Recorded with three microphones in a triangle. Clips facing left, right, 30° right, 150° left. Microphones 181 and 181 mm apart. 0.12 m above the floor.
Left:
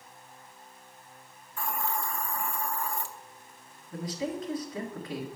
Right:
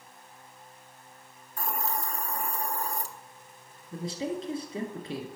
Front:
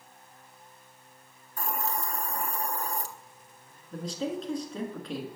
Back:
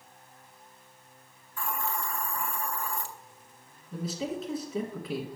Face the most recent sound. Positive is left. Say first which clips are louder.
# right 1 dB, front 1 dB
turn(degrees=-130)